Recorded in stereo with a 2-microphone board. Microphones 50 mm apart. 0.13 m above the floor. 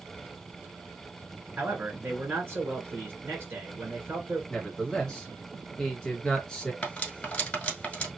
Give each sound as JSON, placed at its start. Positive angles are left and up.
{"t": 1.6, "sound": "a man speaking", "side_deg": -50, "distance_m": 1.9}
{"t": 4.5, "sound": "a man speaking", "side_deg": 15, "distance_m": 1.3}
{"t": 6.8, "sound": "cutlery clinking", "side_deg": 25, "distance_m": 1.3}